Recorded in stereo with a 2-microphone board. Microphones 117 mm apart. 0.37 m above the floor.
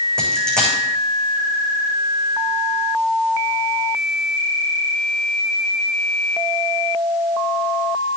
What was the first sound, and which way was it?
A dropped coin, 5° left (ahead or behind).